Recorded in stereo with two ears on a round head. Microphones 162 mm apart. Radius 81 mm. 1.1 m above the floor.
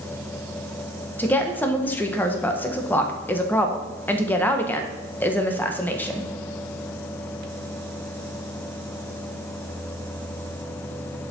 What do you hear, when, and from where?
1.2 s a woman speaking: 10° left (ahead or behind), 1.1 m